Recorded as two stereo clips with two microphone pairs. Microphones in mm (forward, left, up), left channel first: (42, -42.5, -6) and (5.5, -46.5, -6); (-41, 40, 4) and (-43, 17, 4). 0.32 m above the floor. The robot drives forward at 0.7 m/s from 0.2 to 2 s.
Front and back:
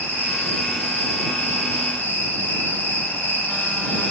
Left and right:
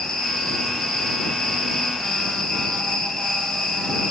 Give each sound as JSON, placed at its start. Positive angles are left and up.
{"t": 0.0, "sound": "an insect", "azimuth_deg": 15, "distance_m": 9.0}